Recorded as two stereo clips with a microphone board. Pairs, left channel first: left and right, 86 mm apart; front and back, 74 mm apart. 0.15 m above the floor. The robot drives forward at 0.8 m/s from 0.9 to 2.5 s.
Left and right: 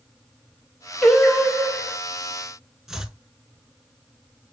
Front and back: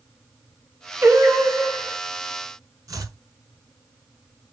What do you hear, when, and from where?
1.0 s singing: 170° left, 1.1 m; by 2.0 s 175° left, 1.7 m
2.9 s chopping: 175° right, 0.7 m